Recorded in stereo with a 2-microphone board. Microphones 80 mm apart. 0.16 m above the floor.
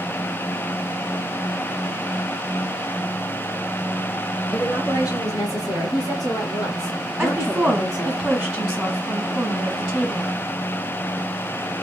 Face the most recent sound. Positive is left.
turn(degrees=-5)  # may be behind; listen again after turning